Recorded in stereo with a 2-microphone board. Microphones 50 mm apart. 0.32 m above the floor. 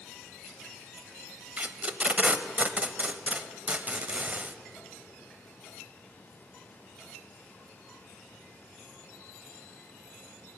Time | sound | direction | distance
1.6 | tape being pulled | 30° right (ahead or behind) | 0.7 m